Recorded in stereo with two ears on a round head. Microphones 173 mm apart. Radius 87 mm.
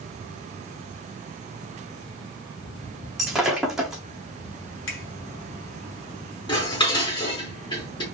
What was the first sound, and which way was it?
Breaking glass, centre (ahead or behind).